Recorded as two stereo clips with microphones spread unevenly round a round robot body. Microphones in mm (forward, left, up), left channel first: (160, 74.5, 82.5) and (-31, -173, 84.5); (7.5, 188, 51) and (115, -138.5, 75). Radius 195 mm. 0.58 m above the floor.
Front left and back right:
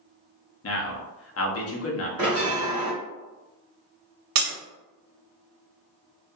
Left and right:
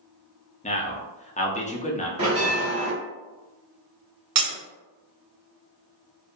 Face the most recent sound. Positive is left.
turn(degrees=-130)